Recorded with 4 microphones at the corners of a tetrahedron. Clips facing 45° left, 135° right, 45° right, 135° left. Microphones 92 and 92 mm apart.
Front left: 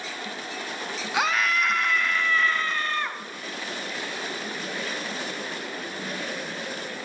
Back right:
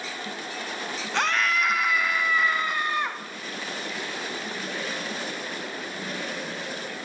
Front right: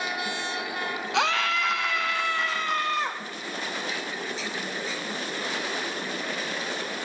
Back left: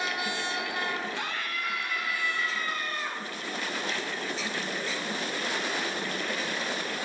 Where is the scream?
40° right, 0.9 m; by 3.2 s 65° right, 1.9 m.